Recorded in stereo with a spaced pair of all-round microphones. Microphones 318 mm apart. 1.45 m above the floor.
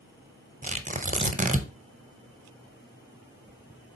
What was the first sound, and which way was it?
Tearing paper, 25° right (ahead or behind).